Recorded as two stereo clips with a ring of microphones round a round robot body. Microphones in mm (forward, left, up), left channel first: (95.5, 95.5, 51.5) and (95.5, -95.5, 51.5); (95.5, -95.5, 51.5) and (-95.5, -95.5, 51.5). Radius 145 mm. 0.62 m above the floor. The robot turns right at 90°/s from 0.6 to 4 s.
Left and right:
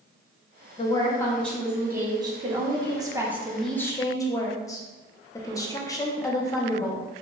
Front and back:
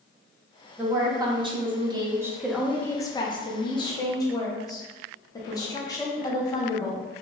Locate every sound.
0.8 s a woman speaking: 110° left, 0.5 m; by 7.0 s 40° left, 0.5 m